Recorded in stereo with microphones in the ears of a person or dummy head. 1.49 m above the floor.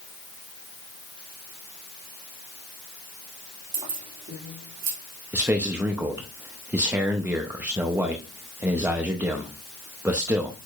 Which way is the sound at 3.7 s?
30° right (ahead or behind).